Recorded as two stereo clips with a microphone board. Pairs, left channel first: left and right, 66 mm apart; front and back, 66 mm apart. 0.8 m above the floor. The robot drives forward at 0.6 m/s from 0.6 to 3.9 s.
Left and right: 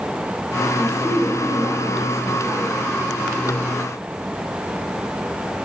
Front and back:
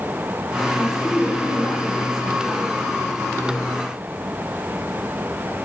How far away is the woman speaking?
About 3.5 m.